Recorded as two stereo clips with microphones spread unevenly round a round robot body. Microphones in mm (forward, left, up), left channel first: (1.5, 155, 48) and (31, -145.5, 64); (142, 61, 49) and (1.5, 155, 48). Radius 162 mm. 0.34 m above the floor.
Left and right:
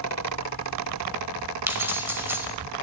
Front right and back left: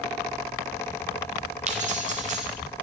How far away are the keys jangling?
About 1.2 m.